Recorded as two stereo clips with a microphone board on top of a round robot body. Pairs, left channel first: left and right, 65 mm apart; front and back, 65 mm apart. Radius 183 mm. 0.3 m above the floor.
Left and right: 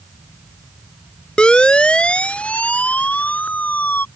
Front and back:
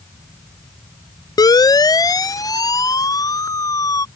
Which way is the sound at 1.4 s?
15° left.